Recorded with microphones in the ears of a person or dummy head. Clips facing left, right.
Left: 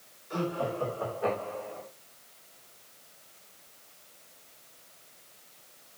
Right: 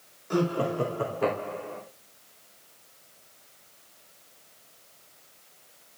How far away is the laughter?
About 2.5 m.